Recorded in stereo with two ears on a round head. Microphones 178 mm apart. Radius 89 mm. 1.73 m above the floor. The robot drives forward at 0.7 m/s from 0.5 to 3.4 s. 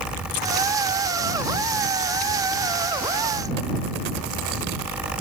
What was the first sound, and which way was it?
Only background noise.